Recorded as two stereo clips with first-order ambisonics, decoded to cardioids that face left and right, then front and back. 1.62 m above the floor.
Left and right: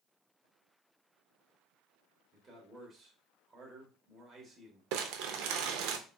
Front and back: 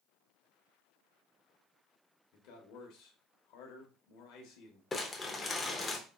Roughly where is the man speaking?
Ahead.